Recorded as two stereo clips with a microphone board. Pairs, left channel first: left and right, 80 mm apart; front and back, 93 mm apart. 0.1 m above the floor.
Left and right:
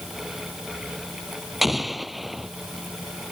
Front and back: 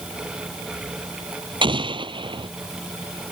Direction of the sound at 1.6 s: Straight behind.